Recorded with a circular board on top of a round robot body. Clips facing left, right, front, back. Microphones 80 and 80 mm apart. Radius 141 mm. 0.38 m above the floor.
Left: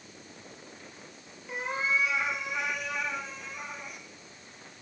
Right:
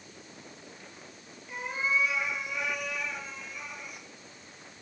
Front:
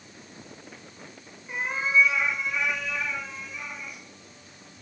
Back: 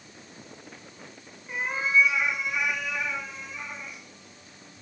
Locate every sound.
1.5 s a cat meowing: 85° left, 4 m; by 4.0 s 120° left, 4.5 m